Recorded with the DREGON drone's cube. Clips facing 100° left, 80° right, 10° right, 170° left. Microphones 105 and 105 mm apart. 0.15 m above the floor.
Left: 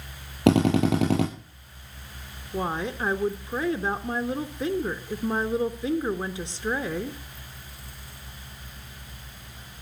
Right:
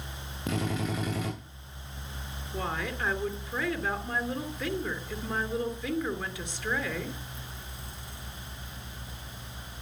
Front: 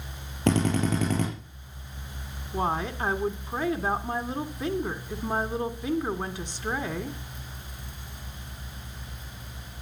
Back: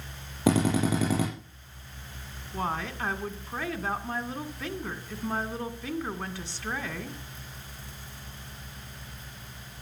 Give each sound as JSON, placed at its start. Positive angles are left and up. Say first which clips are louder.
{"t": 0.5, "sound": "a drill", "louder": "left 12 dB, even", "azimuth_deg": 90, "distance_m": 7.5}
{"t": 2.5, "sound": "a woman speaking", "louder": "left 5 dB, front 4 dB", "azimuth_deg": 55, "distance_m": 1.5}